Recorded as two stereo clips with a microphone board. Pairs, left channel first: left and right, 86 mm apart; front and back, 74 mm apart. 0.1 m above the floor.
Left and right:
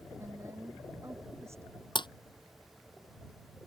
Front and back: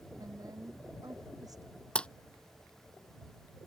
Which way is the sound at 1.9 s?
75° left.